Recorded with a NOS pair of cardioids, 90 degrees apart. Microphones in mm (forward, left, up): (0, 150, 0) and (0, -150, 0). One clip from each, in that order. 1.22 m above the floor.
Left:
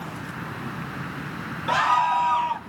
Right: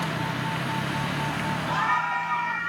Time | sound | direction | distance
1.7 | a scream | 35° left | 1.0 m